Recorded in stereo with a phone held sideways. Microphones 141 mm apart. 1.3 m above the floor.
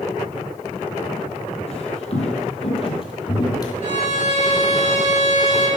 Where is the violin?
75° left (ahead or behind), 3 m.